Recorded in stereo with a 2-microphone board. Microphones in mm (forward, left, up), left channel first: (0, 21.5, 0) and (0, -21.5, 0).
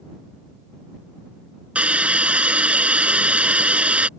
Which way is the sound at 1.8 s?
30° right (ahead or behind).